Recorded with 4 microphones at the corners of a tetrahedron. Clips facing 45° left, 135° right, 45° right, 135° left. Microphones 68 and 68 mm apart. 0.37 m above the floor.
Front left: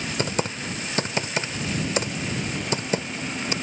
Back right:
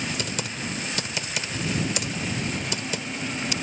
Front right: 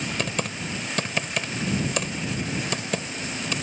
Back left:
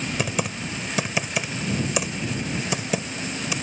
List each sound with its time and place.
0.2 s typing on a keyboard: 60° left